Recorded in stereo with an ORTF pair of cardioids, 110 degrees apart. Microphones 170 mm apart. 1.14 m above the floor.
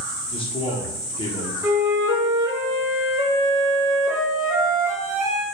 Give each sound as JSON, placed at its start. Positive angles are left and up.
{"t": 0.3, "sound": "a man speaking", "azimuth_deg": 30, "distance_m": 0.7}
{"t": 1.6, "sound": "a flute", "azimuth_deg": -20, "distance_m": 0.9}